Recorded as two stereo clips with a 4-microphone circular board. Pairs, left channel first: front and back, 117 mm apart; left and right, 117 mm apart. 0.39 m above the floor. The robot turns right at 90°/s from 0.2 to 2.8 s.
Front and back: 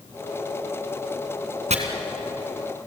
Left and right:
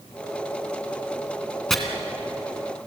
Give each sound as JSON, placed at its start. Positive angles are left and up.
{"t": 1.7, "sound": "chopping", "azimuth_deg": 175, "distance_m": 2.5}